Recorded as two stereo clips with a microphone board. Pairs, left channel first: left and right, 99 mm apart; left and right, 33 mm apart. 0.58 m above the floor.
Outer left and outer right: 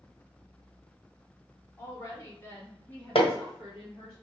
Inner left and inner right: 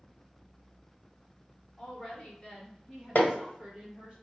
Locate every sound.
1.8 s a woman speaking: 30° left (ahead or behind), 1.7 m; by 4.2 s 10° right (ahead or behind), 1.9 m
3.1 s hammering: 65° left (ahead or behind), 1.2 m